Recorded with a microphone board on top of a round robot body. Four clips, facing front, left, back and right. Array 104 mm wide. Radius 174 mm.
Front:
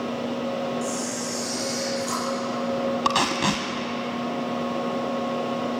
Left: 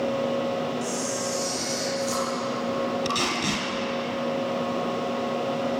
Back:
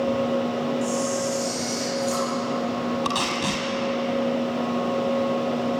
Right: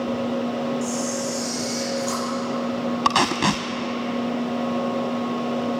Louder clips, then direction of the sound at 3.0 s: Right 7 dB, front 3 dB; 70° right.